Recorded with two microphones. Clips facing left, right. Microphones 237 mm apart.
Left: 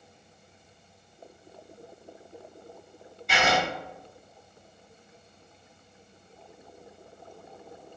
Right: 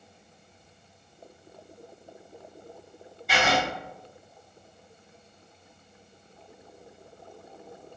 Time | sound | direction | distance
3.3 | writing | centre (ahead or behind) | 1.7 m